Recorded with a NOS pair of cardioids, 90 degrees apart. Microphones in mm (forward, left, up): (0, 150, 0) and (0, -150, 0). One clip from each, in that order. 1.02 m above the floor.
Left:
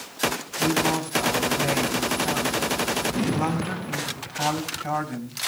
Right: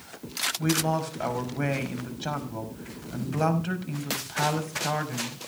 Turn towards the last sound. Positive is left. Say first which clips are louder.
# left 7 dB
turn(degrees=-20)